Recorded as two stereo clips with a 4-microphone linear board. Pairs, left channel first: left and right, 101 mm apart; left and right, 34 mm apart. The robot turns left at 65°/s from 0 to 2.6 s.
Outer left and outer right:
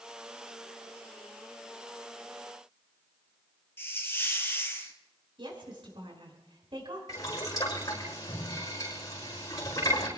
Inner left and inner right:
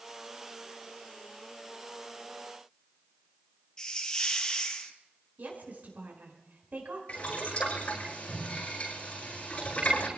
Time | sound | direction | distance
3.8 | a hiss | 25° left (ahead or behind) | 2 m
5.4 | a woman speaking | 55° right (ahead or behind) | 4.5 m
7.1 | boiling | 35° left (ahead or behind) | 10 m